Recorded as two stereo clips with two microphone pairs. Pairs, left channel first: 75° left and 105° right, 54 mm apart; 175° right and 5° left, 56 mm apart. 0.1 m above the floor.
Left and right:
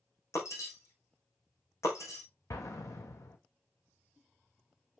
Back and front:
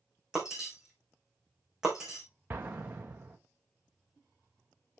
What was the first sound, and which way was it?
Breaking glass, 90° left.